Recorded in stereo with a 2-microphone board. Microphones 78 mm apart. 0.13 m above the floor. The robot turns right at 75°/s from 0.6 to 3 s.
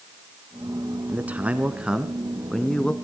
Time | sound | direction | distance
1.1 | a man speaking | 20° right (ahead or behind) | 1.2 m